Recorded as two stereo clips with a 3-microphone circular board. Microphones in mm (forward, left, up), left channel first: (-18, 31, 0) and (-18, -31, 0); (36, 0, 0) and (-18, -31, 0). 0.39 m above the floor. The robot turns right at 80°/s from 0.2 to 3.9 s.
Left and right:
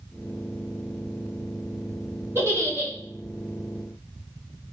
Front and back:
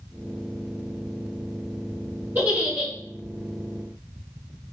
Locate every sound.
2.4 s a giggle: 105° right, 1.3 m; by 2.9 s 60° right, 1.3 m